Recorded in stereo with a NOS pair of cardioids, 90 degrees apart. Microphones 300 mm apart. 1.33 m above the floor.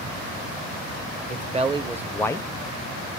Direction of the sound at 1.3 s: 30° right.